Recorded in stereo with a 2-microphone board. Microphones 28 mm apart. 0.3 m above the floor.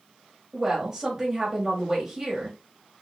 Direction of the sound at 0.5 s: 25° right (ahead or behind).